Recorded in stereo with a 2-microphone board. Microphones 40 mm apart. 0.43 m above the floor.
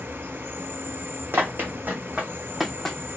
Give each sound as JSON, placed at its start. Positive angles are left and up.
{"t": 0.0, "sound": "an insect", "side_deg": -65, "distance_m": 0.8}
{"t": 1.3, "sound": "running footsteps", "side_deg": -55, "distance_m": 1.1}